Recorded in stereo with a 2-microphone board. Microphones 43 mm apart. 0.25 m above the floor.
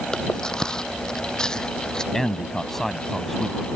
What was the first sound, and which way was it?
Chewing, 15° left (ahead or behind).